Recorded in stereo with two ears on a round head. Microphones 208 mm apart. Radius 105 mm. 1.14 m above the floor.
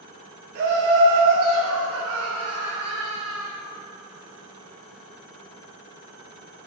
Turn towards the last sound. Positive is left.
turn(degrees=-60)  # may be behind; listen again after turning